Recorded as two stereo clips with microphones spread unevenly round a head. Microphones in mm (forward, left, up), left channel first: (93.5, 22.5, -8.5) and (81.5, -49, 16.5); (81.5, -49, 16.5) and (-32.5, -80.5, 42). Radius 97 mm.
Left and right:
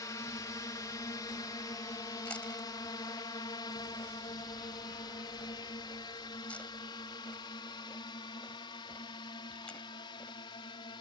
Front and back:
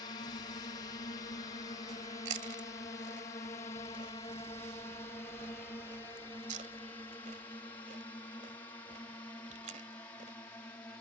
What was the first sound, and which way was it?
A drone, 60° left.